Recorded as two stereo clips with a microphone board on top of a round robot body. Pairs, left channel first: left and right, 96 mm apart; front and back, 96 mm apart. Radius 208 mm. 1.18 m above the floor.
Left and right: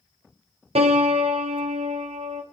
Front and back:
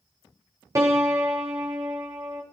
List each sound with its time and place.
0.8 s a piano: 115° right, 1.3 m